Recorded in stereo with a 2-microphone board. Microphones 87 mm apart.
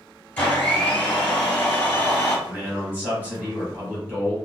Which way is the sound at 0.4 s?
15° left (ahead or behind).